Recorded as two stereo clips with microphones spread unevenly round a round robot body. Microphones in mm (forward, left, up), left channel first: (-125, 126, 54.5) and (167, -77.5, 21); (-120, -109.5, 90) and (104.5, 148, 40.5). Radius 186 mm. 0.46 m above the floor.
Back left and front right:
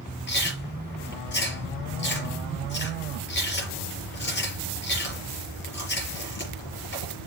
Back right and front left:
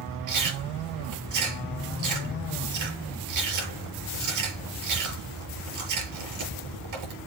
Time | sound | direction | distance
0.3 | chewing | 85° left | 5.5 m